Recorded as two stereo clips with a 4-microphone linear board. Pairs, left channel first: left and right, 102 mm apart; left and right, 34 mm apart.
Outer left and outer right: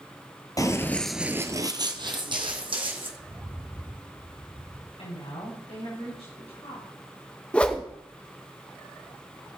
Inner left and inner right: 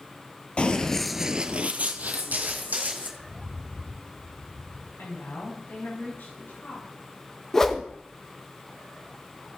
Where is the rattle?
40° left (ahead or behind), 7.5 m.